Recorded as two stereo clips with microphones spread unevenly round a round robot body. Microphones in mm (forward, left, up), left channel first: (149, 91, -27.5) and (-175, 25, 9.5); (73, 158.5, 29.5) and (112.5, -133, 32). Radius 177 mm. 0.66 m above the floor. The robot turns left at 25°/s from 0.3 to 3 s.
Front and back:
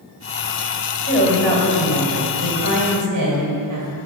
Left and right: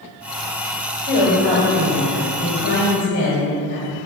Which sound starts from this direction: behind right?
A woman speaking, at 1.0 s.